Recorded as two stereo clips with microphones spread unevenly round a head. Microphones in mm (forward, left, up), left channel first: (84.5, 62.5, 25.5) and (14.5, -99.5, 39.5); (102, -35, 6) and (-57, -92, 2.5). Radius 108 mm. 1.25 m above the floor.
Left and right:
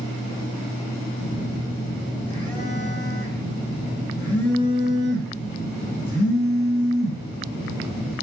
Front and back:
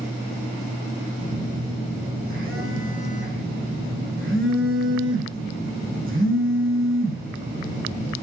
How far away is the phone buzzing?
About 8 m.